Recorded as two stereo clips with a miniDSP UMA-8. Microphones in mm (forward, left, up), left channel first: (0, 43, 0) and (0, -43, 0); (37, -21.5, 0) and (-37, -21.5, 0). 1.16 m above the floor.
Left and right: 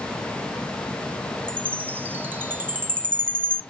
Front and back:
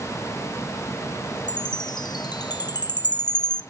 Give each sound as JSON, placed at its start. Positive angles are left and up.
{"t": 1.5, "sound": "a chime", "azimuth_deg": -20, "distance_m": 0.9}